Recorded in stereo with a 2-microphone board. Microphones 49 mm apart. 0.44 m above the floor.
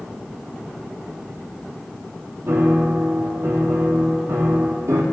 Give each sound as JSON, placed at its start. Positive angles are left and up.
{"t": 2.5, "sound": "a piano", "side_deg": -80, "distance_m": 2.0}